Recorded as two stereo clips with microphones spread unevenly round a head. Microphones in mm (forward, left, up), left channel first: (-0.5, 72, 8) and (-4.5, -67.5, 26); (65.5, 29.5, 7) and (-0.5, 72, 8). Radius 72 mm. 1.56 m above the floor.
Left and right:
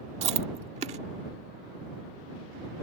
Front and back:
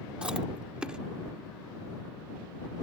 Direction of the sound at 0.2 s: 130° right.